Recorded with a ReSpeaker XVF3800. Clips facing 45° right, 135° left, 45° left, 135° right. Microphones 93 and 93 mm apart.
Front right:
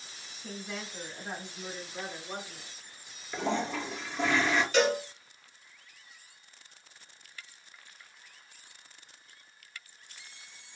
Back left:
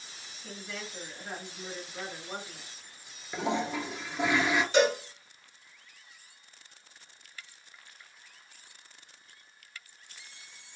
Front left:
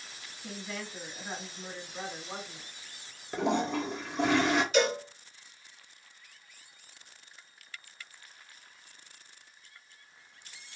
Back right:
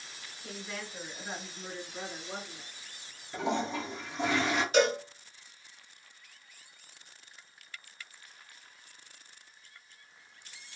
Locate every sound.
0.4 s a woman speaking: 55° right, 1.6 m; by 2.7 s 65° left, 1.7 m
3.3 s a toilet flushing: 60° left, 0.7 m
4.7 s a cowbell: 170° right, 1.2 m